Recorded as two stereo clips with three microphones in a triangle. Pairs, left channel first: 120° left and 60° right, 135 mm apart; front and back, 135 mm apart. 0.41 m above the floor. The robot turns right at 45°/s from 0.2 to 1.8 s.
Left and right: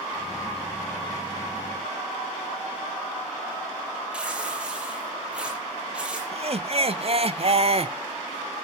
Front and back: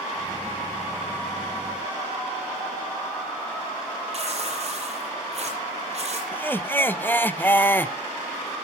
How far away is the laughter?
About 1.1 m.